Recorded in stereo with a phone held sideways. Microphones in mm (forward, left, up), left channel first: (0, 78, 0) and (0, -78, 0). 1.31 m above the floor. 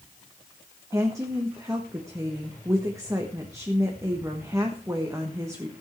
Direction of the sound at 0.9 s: 20° right (ahead or behind).